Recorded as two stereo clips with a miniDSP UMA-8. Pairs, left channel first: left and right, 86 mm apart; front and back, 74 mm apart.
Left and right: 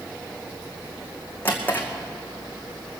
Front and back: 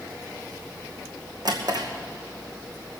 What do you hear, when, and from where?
1.4 s a drawer: 160° left, 2 m